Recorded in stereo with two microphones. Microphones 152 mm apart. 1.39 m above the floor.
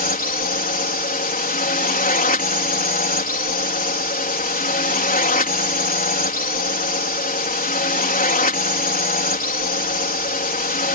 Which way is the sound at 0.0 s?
70° left (ahead or behind).